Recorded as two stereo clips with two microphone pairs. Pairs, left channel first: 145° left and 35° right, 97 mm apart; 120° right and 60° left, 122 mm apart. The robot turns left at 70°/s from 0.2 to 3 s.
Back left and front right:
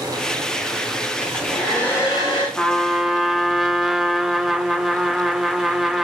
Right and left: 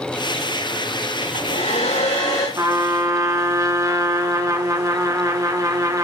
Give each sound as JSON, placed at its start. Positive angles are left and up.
{"t": 1.2, "sound": "a hair dryer", "azimuth_deg": -100, "distance_m": 9.0}
{"t": 2.6, "sound": "a trumpet", "azimuth_deg": 75, "distance_m": 1.3}